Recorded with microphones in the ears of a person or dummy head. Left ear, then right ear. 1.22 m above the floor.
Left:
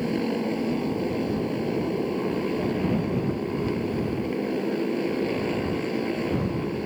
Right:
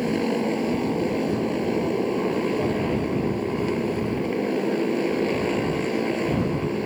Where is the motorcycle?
10° right (ahead or behind).